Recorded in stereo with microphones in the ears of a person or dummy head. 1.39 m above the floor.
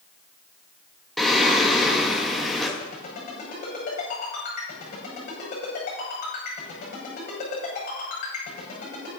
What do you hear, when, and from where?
1.2 s singing: 5° left (ahead or behind), 1.4 m
2.8 s a ringtone: 40° left (ahead or behind), 6 m